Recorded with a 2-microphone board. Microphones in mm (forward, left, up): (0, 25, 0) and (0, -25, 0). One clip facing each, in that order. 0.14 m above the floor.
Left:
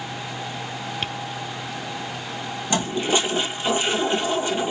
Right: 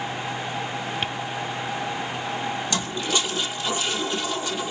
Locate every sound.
1.0 s tapping: 5° right (ahead or behind), 0.6 m
2.7 s a toilet flushing: 30° left (ahead or behind), 1.5 m